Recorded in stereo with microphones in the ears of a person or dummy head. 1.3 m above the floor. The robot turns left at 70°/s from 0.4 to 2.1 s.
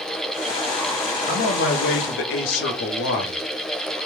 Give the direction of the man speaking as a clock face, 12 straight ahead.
8 o'clock.